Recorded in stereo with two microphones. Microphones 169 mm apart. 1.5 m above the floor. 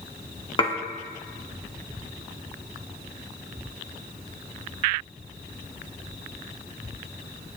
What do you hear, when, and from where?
0.6 s dishes clattering: 30° left (ahead or behind), 1.7 m